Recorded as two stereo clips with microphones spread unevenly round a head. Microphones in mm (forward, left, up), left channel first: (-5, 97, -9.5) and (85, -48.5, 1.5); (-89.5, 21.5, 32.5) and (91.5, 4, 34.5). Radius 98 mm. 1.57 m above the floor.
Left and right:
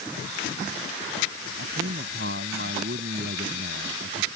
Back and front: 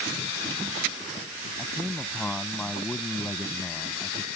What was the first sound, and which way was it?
A man speaking, 100° right.